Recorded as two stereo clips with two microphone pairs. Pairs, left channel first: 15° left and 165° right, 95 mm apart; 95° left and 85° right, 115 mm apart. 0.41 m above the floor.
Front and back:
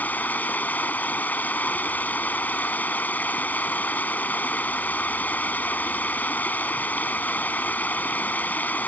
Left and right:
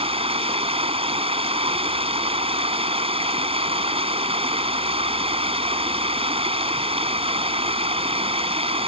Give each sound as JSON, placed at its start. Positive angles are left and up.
{"t": 0.0, "sound": "running water", "azimuth_deg": -55}